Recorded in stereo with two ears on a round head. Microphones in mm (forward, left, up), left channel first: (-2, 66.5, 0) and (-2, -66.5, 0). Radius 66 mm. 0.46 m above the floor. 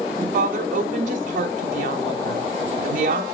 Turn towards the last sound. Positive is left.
turn(degrees=-60)  # may be behind; listen again after turning